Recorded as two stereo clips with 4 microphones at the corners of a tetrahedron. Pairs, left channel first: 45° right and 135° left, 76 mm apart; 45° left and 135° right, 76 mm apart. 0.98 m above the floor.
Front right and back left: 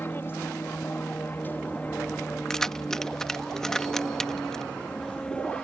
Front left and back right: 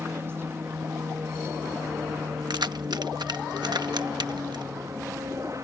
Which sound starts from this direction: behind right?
Keys jangling, at 2.5 s.